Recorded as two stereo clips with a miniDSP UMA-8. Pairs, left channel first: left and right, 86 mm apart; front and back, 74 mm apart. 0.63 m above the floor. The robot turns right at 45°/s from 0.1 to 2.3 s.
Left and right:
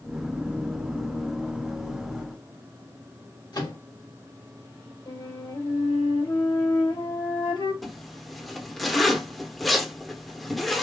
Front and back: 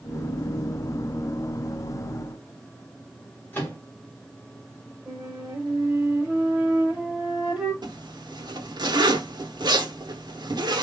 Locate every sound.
3.5 s a microwave: 60° left, 1.5 m
5.1 s a flute: 100° left, 1.8 m
7.8 s a zipper: straight behind, 0.8 m